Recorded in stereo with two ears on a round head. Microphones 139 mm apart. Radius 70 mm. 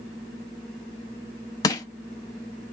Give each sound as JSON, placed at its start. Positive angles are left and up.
{"t": 1.6, "sound": "crushing", "side_deg": 25, "distance_m": 0.8}